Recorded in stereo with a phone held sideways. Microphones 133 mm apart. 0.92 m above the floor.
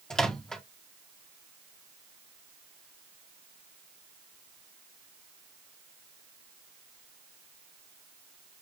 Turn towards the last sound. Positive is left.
turn(degrees=5)  # may be behind; listen again after turning